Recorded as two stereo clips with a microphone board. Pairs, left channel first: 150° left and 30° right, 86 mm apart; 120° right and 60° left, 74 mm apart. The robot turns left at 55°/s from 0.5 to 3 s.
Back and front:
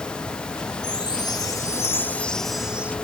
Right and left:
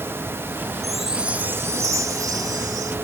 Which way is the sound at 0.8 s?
155° left.